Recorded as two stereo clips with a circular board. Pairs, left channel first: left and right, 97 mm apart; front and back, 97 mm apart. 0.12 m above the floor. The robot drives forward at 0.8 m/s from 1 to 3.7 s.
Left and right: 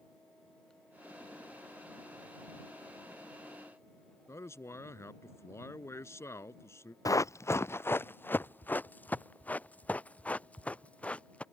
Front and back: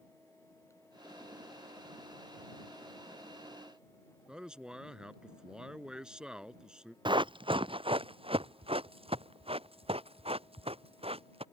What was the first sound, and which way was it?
A man speaking, 105° left.